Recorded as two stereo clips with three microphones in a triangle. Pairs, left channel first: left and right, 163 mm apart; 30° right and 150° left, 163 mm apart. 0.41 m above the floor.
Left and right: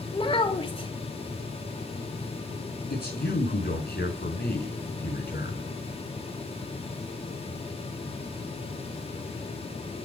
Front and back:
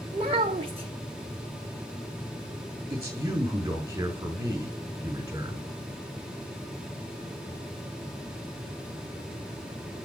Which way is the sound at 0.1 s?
120° left.